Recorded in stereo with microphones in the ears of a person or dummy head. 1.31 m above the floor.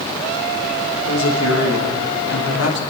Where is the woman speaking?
75° left (ahead or behind), 1.9 m.